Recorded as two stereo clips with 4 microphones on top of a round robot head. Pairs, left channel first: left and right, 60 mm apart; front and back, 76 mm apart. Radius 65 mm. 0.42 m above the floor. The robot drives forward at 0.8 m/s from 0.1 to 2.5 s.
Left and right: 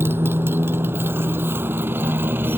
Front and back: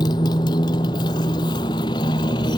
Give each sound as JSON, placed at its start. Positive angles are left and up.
{"t": 0.0, "sound": "a motorcycle", "azimuth_deg": -40}